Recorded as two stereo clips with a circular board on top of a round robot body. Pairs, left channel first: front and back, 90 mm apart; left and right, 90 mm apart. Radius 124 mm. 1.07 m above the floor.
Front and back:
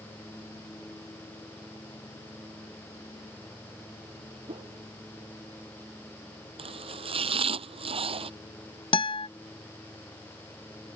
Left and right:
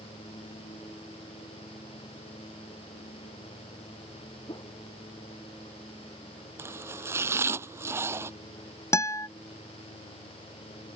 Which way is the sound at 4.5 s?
140° left.